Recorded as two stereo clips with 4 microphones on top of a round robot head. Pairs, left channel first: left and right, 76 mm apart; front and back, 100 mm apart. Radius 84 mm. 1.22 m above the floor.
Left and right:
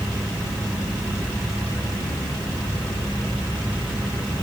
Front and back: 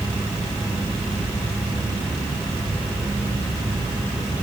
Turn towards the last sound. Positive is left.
No sound to turn to.